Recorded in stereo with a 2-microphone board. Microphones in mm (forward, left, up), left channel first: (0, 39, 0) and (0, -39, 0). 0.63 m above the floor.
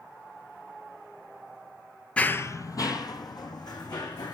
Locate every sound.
2.2 s running footsteps: 15° left (ahead or behind), 0.6 m; by 4.3 s 65° left (ahead or behind), 3 m